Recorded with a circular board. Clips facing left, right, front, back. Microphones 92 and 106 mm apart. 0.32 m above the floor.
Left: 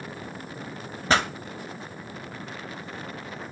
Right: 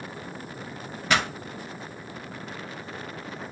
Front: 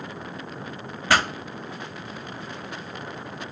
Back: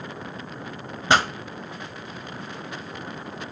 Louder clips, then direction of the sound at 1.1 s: Left 2 dB, back 2 dB; 125° left.